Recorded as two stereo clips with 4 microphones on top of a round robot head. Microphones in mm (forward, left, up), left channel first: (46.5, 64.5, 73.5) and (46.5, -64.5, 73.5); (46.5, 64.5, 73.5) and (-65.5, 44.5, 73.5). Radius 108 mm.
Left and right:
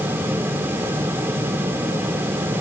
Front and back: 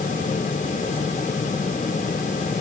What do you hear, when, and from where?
Only background noise.